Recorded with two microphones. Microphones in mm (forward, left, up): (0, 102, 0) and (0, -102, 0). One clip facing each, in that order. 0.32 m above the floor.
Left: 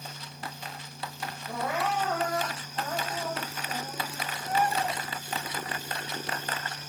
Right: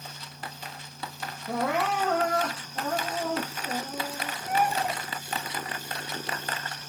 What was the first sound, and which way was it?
Crying, 85° right.